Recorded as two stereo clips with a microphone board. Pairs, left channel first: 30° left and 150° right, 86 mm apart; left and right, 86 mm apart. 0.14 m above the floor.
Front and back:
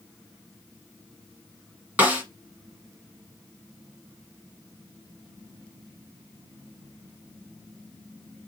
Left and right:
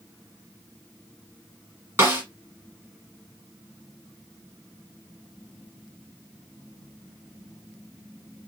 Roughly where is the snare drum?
Right.